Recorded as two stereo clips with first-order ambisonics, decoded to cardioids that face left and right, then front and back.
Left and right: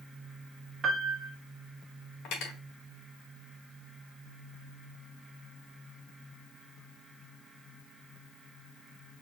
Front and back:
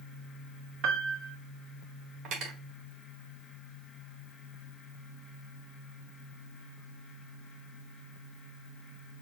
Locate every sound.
0.8 s a piano: 155° right, 1.0 m
2.2 s cutlery clinking: 130° left, 1.6 m